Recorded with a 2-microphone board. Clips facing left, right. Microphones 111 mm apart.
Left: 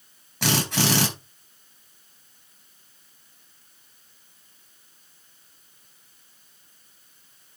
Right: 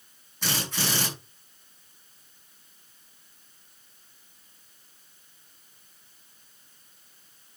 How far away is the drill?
About 4.5 m.